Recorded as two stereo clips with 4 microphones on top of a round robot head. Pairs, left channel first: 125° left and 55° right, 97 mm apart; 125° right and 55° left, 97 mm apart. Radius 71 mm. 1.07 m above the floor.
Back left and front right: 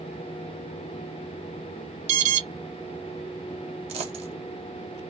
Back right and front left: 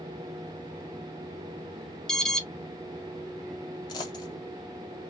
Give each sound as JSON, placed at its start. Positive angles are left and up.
{"t": 2.1, "sound": "an alarm", "azimuth_deg": -40, "distance_m": 0.6}
{"t": 3.9, "sound": "a dropped coin", "azimuth_deg": -75, "distance_m": 1.7}